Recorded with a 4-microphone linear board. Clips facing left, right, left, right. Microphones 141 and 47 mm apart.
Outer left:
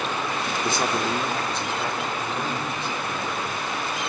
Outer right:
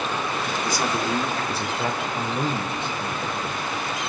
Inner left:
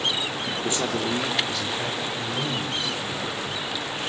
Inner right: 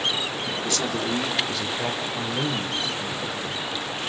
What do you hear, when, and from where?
0.6 s a man speaking: 30° left (ahead or behind), 1.5 m; by 3.6 s 35° right (ahead or behind), 3.5 m